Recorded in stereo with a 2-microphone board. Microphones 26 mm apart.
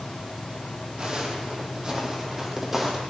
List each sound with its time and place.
1.0 s footsteps: 40° right (ahead or behind), 3 m; by 3.0 s 15° right (ahead or behind), 3 m